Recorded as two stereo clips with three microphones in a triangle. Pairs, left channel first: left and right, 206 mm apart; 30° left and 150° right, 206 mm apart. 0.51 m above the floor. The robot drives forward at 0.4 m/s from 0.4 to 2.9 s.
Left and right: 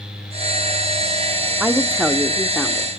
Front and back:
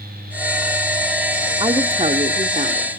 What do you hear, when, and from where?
1.6 s a woman speaking: 160° right, 0.9 m; by 2.9 s 175° right, 1.2 m